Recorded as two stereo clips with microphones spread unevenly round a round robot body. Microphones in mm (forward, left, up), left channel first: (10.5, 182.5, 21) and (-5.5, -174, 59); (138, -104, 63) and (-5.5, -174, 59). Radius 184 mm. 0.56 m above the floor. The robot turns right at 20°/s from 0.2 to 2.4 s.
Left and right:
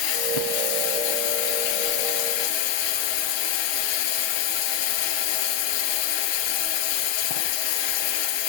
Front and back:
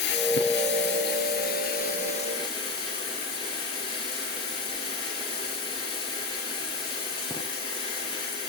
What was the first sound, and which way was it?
Running water, 55° left.